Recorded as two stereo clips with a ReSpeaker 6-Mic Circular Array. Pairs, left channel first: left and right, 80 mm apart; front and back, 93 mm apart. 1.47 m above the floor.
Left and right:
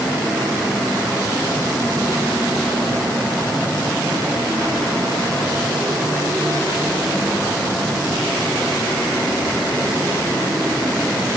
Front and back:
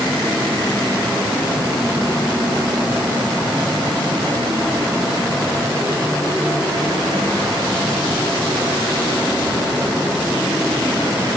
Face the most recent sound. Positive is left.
No sound to turn to.